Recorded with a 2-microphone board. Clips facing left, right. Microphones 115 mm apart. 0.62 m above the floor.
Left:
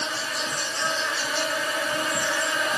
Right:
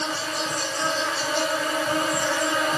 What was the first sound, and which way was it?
An insect, 45° right (ahead or behind).